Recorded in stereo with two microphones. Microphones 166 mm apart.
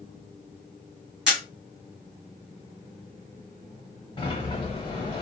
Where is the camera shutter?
5° right (ahead or behind), 1.7 m.